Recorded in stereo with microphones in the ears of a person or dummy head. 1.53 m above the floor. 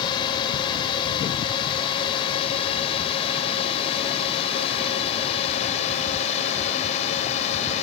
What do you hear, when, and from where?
0.0 s a drone: 25° left (ahead or behind); by 7.8 s 40° left (ahead or behind)